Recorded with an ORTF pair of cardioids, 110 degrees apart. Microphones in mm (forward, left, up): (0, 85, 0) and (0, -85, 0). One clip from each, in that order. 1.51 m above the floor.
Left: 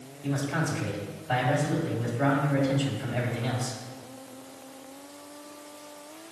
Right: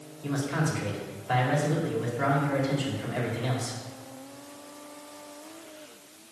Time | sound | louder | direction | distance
0.2 | a man speaking | even | 25° right | 3 m